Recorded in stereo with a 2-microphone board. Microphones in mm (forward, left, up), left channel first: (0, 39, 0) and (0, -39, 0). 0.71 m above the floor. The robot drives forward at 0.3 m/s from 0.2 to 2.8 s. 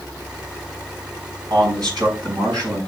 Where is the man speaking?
55° right (ahead or behind), 5.5 m.